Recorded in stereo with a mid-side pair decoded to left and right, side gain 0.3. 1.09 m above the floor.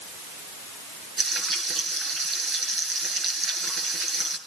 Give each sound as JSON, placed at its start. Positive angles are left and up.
{"t": 1.2, "sound": "frying", "azimuth_deg": -70, "distance_m": 7.0}